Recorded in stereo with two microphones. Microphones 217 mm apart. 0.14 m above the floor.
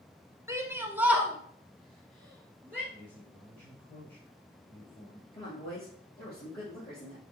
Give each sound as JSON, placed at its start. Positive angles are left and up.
{"t": 0.5, "sound": "a shout", "side_deg": -15, "distance_m": 1.1}
{"t": 2.9, "sound": "a man speaking", "side_deg": 25, "distance_m": 3.0}
{"t": 5.3, "sound": "a woman speaking", "side_deg": 45, "distance_m": 3.5}